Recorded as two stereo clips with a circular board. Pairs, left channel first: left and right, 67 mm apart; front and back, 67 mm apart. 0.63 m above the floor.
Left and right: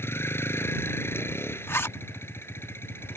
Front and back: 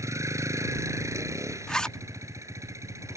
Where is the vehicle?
140° left.